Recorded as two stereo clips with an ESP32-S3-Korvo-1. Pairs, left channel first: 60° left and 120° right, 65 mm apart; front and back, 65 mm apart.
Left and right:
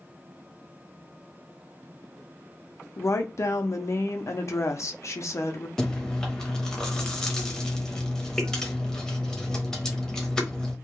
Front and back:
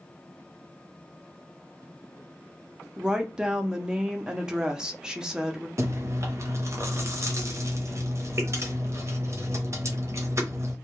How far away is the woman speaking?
About 0.5 m.